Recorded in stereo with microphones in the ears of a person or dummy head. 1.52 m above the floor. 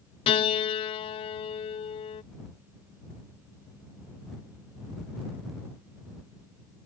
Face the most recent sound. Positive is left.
turn(degrees=30)  # may be behind; listen again after turning